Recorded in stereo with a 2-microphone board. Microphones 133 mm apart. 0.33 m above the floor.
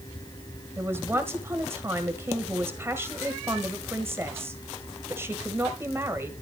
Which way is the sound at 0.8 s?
20° right (ahead or behind).